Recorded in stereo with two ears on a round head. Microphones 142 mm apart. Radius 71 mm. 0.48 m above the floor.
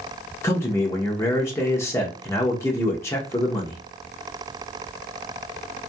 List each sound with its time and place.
0.4 s a man speaking: 15° left (ahead or behind), 0.7 m